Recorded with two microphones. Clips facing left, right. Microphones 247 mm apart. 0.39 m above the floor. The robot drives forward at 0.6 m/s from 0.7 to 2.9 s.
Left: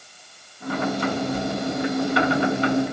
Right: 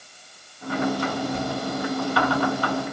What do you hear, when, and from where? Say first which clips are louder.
1.3 s footsteps: left 2 dB; 30° right (ahead or behind), 5 m; by 2.3 s 35° right (ahead or behind), 5 m